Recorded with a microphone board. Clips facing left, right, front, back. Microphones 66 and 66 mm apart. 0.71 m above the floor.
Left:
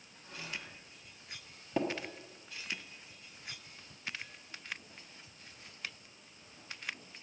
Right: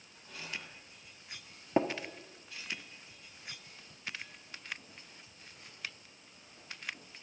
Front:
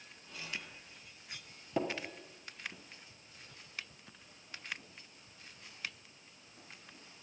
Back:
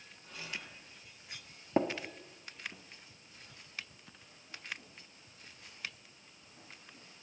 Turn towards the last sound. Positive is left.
turn(degrees=-140)